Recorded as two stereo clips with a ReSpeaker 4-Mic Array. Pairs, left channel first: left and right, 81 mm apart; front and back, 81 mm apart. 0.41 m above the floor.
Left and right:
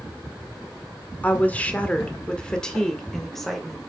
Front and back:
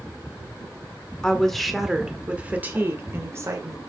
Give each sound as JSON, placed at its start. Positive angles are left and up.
{"t": 1.2, "sound": "a woman speaking", "azimuth_deg": 65, "distance_m": 1.3}